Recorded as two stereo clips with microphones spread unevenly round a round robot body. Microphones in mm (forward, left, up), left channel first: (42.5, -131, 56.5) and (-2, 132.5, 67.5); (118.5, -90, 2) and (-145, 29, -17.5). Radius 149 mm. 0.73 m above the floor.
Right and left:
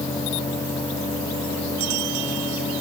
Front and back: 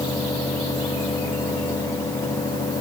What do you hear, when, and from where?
Only background noise.